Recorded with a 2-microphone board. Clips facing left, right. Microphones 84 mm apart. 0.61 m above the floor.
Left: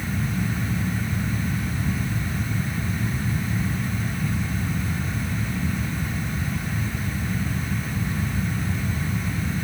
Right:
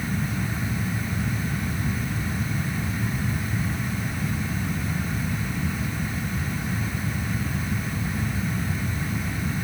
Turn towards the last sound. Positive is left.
No sound to turn to.